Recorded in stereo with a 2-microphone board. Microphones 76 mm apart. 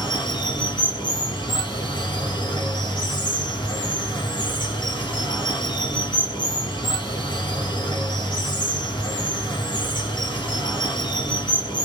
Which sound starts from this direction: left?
Running water, at 0.0 s.